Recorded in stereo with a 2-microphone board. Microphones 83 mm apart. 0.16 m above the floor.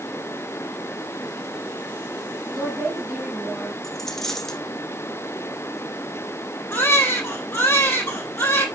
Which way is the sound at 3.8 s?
5° left (ahead or behind).